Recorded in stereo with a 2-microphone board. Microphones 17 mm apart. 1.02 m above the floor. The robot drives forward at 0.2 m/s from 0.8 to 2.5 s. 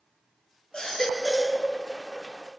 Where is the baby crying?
70° left (ahead or behind), 1.8 m; by 1.6 s 65° left (ahead or behind), 1.8 m.